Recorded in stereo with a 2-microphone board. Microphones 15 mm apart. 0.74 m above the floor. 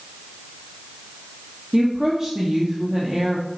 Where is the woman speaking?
30° right (ahead or behind), 1.4 m.